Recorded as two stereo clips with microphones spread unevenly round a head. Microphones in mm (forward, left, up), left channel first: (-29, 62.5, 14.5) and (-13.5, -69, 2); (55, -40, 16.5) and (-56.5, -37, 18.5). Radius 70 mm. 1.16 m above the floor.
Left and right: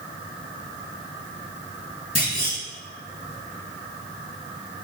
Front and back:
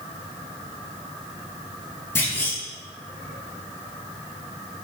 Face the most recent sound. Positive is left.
turn(degrees=70)